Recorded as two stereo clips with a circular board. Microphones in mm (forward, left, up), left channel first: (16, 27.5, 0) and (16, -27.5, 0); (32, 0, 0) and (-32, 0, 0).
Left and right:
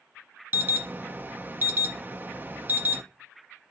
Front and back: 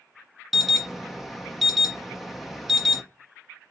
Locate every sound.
0.5 s an alarm: 95° right, 0.5 m